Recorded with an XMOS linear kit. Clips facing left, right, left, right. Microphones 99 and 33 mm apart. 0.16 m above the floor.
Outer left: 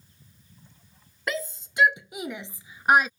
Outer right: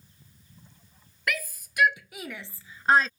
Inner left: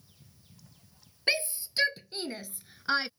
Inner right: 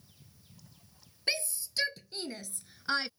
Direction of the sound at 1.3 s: 25° left (ahead or behind).